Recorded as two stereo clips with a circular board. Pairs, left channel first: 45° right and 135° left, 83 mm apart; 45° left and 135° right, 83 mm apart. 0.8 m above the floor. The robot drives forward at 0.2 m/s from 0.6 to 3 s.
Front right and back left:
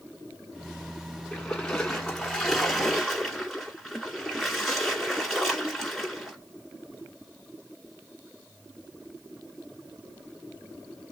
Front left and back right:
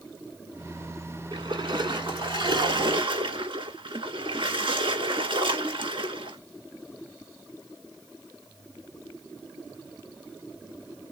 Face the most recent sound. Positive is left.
turn(degrees=-135)